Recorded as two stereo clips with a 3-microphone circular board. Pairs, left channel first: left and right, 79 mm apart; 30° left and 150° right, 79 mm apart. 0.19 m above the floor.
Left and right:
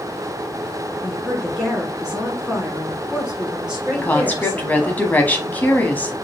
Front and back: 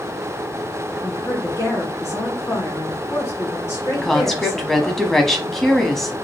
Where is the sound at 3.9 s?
110° left, 1.0 m.